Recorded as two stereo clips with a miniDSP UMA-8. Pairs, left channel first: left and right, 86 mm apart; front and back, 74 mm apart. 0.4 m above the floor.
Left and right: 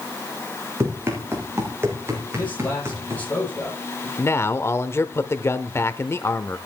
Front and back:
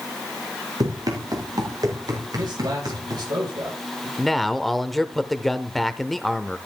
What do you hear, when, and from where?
0.8 s running footsteps: 150° right, 6 m; by 3.2 s 145° right, 7 m
2.3 s a man speaking: 165° left, 10 m
4.2 s a man speaking: 85° left, 0.9 m